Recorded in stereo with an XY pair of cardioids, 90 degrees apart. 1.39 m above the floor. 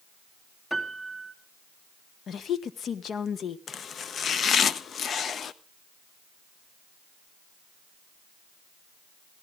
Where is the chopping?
60° left, 0.8 m.